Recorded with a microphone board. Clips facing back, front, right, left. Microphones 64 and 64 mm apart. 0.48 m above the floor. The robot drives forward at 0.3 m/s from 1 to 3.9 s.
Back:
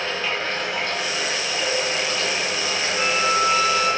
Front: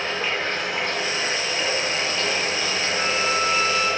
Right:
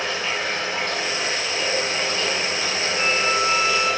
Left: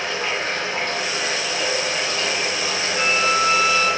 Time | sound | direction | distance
0.0 | running water | 60° left | 0.9 m
3.0 | a violin | 145° left | 1.6 m